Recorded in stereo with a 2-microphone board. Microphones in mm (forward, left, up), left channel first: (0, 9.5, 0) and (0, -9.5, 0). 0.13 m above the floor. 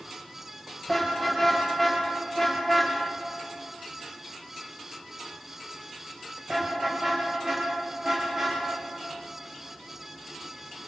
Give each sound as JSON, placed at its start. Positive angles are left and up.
{"t": 0.9, "sound": "a car horn", "side_deg": 10, "distance_m": 9.0}